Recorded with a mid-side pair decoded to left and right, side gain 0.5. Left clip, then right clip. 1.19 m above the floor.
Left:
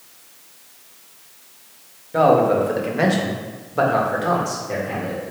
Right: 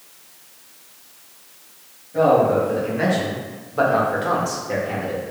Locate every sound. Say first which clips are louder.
2.1 s a man speaking: left 1 dB; 65° left, 1.4 m; by 5.2 s 15° right, 1.8 m